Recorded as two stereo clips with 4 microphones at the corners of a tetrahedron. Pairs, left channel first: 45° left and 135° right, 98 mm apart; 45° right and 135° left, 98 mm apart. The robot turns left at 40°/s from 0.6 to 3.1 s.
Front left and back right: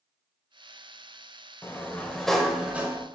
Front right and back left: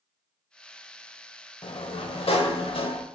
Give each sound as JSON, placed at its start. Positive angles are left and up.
{"t": 1.6, "sound": "a sliding door", "azimuth_deg": -15, "distance_m": 0.6}